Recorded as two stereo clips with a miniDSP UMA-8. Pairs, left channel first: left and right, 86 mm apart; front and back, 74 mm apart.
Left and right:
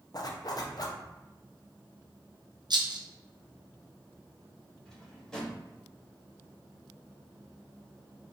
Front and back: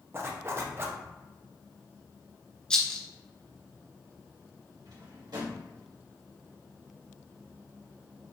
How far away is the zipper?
About 0.6 m.